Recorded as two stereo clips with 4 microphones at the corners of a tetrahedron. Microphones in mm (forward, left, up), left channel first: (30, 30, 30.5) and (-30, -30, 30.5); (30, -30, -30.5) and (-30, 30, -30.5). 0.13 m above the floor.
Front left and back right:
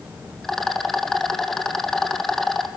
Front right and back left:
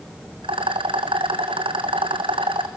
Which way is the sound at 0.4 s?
130° left.